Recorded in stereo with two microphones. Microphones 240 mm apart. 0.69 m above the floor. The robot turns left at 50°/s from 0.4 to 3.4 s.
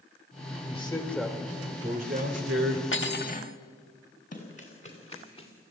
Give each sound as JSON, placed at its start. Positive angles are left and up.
{"t": 0.7, "sound": "a man speaking", "azimuth_deg": 30, "distance_m": 2.5}
{"t": 2.9, "sound": "cutlery clinking", "side_deg": 55, "distance_m": 0.8}
{"t": 4.3, "sound": "running footsteps", "side_deg": 35, "distance_m": 4.0}